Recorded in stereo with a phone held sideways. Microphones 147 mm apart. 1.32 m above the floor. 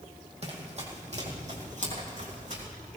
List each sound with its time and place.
0.4 s running footsteps: 45° right (ahead or behind), 2.5 m; by 2.7 s 55° right (ahead or behind), 4 m